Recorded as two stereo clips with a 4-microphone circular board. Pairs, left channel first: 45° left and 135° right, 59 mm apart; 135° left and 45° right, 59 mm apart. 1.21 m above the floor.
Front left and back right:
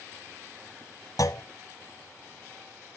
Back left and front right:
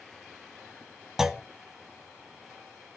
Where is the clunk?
40° left, 0.5 m.